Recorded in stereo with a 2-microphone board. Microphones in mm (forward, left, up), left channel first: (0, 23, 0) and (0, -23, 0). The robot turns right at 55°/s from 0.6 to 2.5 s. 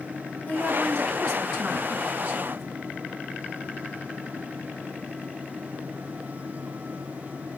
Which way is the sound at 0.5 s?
130° left.